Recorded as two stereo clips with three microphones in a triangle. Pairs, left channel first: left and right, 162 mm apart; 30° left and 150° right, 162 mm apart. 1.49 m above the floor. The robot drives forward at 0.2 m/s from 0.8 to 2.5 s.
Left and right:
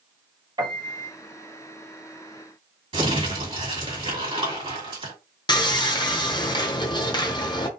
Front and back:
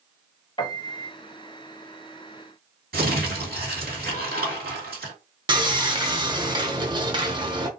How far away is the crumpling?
About 2 m.